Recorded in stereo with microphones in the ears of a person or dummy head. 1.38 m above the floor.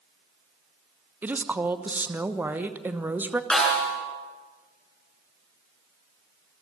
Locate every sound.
1.2 s a woman speaking: 10° right (ahead or behind), 1.0 m
3.5 s a snare drum: 5° left (ahead or behind), 8.5 m